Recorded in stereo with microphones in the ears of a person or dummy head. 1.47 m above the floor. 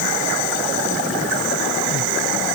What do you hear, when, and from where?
Only background noise.